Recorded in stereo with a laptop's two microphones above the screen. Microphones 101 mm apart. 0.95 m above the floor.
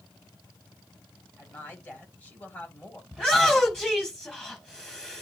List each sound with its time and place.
1.4 s a woman speaking: 15° left (ahead or behind), 6.5 m
3.1 s a shout: 5° left (ahead or behind), 6 m